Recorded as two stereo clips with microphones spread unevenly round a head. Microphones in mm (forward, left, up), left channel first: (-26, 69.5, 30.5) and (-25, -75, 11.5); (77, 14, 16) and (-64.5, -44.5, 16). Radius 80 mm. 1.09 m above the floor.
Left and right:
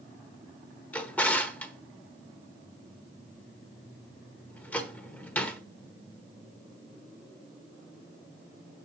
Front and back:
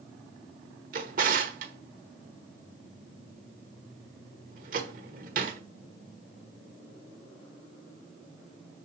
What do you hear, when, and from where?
0.9 s a drawer: 165° left, 1.3 m